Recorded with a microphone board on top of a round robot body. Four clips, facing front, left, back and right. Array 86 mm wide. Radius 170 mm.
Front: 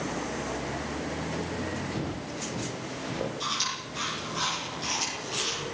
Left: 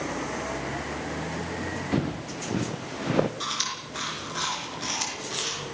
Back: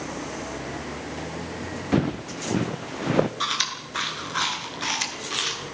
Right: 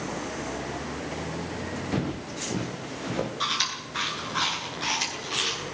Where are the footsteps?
170° left, 3.5 m; by 3.3 s 155° left, 1.9 m.